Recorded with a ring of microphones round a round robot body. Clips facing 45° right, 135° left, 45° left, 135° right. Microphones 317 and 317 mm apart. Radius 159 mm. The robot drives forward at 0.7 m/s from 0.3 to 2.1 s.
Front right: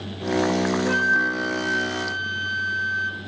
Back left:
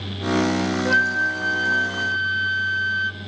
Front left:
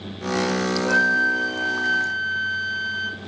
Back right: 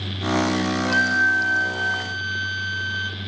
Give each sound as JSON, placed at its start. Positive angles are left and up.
{"t": 0.8, "sound": "a flute", "azimuth_deg": -135, "distance_m": 3.0}